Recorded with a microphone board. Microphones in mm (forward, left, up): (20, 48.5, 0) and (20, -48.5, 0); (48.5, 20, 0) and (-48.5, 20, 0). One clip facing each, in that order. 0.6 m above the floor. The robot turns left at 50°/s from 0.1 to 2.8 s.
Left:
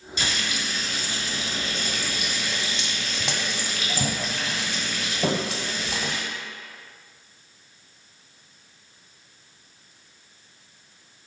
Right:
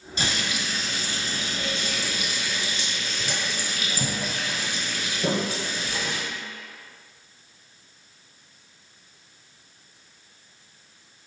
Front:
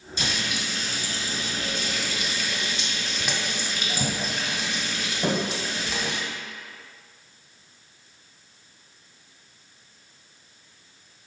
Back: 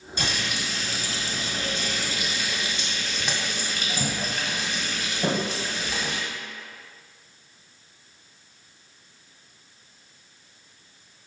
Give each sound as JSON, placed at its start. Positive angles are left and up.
{"t": 0.2, "sound": "frying", "azimuth_deg": -145, "distance_m": 1.3}